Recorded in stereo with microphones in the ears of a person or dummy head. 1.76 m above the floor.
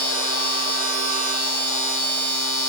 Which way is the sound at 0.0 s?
5° left (ahead or behind).